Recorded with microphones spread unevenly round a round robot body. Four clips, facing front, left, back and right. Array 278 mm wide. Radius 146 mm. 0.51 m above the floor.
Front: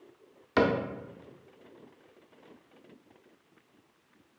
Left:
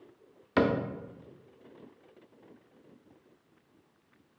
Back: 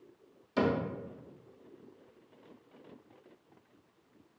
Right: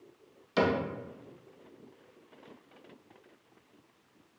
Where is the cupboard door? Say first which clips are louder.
Left 1 dB, front 4 dB; 35° left, 0.5 m.